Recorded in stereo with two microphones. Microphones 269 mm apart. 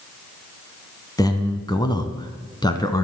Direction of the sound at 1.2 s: 15° left (ahead or behind).